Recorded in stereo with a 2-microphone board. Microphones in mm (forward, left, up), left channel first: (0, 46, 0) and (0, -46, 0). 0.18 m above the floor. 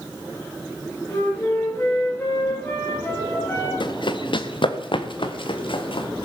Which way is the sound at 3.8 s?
60° left (ahead or behind).